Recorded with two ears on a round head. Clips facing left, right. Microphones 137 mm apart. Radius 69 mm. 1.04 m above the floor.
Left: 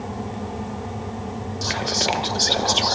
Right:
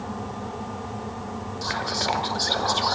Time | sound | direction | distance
1.6 | whispering | 25° left (ahead or behind) | 0.8 m